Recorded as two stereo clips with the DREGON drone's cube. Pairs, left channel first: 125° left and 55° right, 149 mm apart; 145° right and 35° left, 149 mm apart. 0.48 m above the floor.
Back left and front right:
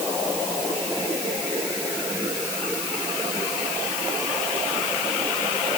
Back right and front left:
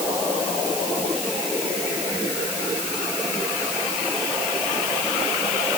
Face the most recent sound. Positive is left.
No sound to turn to.